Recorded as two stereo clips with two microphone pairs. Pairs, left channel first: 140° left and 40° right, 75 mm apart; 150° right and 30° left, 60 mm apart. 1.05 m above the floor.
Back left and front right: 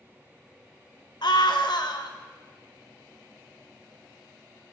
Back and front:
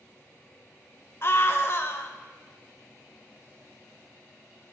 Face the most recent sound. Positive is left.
turn(degrees=165)